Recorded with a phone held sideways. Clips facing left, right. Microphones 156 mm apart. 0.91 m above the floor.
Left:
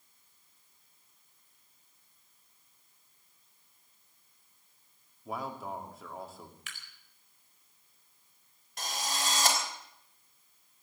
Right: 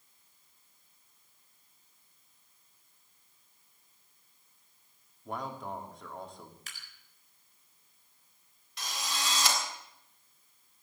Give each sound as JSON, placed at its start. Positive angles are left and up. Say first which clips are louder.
{"t": 5.2, "sound": "a man speaking", "louder": "even", "side_deg": 5, "distance_m": 2.5}
{"t": 6.7, "sound": "dripping", "louder": "left 2 dB", "side_deg": -40, "distance_m": 4.0}
{"t": 8.8, "sound": "a drill", "louder": "left 2 dB", "side_deg": 50, "distance_m": 4.0}